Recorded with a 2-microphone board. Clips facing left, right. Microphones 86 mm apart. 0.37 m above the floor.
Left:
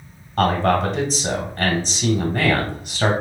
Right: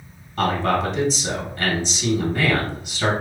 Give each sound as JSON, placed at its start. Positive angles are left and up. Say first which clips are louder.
{"t": 0.4, "sound": "a man speaking", "louder": "left 3 dB", "side_deg": 45, "distance_m": 1.5}